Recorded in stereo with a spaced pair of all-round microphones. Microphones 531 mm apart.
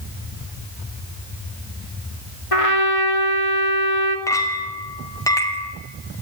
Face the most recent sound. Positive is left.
turn(degrees=5)  # may be behind; listen again after turning